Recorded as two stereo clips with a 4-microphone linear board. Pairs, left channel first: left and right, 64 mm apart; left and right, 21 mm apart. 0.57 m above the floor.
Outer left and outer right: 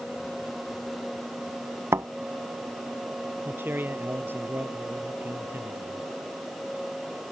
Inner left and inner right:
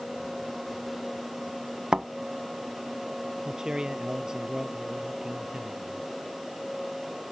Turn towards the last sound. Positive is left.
turn(degrees=-30)  # may be behind; listen again after turning